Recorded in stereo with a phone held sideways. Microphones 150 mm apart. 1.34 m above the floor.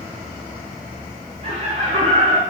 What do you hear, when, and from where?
1.4 s laughter: 40° right (ahead or behind), 0.6 m